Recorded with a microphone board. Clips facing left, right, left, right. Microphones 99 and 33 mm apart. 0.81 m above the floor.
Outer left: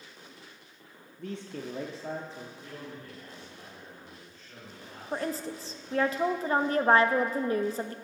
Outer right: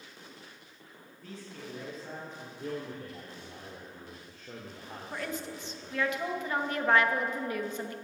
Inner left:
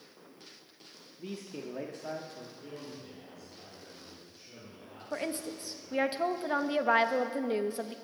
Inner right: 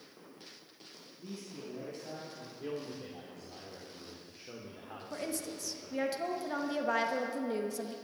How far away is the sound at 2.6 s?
About 2 m.